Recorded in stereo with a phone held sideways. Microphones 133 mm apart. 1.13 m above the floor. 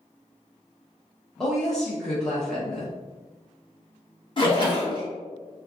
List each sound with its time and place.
1.4 s a woman speaking: 5° left (ahead or behind), 0.9 m
4.4 s a splash: 35° left (ahead or behind), 1.3 m